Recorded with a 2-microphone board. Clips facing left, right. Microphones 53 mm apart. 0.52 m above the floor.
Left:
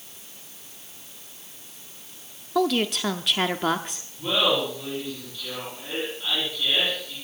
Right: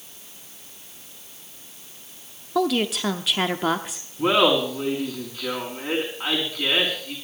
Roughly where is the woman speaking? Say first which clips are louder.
Right 1 dB; centre.